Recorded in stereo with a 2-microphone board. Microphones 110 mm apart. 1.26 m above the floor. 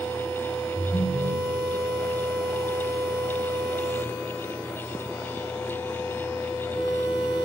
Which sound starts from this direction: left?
A ringtone, at 0.8 s.